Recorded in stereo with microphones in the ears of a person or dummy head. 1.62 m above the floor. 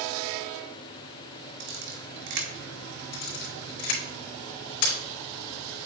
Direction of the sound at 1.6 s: 55° right (ahead or behind).